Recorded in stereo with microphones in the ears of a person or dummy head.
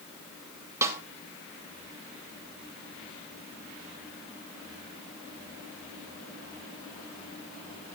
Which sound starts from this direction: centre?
A snare drum, at 0.8 s.